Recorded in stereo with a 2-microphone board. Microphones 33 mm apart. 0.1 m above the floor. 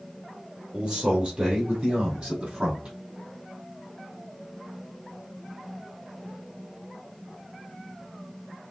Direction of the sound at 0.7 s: 30° right (ahead or behind).